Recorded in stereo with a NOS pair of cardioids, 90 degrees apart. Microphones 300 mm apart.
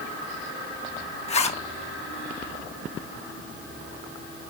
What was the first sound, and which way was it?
A zipper, 25° left.